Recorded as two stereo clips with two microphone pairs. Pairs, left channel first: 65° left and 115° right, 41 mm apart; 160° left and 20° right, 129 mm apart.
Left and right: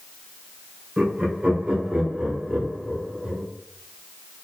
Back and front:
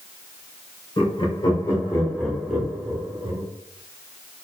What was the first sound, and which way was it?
Laughter, 175° right.